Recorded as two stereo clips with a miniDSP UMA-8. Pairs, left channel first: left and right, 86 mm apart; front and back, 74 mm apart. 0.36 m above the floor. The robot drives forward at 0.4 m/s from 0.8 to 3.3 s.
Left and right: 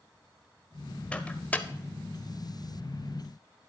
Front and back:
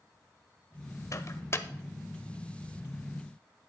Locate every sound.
1.1 s a microwave: 20° left, 0.9 m; by 1.7 s 30° left, 0.8 m